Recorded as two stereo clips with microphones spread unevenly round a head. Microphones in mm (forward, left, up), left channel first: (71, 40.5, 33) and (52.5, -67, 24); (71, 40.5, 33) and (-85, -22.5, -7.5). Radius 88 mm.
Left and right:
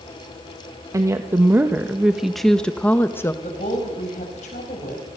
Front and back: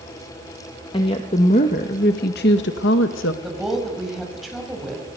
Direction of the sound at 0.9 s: 45° right.